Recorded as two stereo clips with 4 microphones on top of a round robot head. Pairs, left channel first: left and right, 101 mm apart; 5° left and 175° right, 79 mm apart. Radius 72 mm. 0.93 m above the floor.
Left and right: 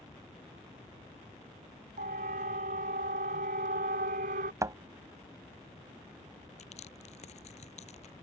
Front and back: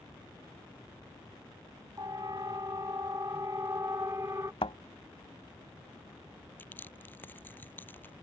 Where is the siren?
110° right; by 4.5 s 105° right.